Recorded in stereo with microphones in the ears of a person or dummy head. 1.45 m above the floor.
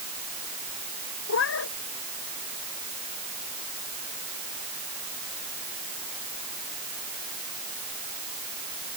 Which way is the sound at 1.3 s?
75° left (ahead or behind).